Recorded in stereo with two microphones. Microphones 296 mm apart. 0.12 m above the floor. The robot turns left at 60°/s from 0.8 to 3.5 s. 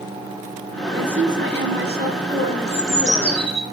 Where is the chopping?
I don't hear chopping.